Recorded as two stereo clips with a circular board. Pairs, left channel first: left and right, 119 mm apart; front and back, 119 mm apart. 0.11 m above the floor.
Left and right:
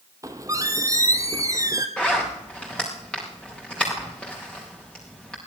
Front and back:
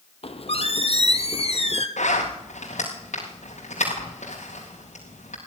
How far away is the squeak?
About 1.2 m.